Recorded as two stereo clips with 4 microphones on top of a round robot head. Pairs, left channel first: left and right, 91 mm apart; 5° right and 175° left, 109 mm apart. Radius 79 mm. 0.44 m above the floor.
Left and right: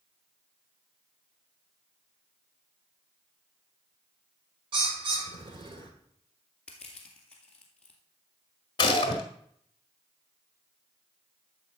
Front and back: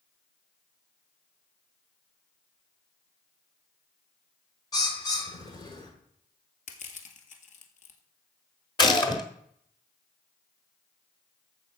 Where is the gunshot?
45° left, 1.8 m.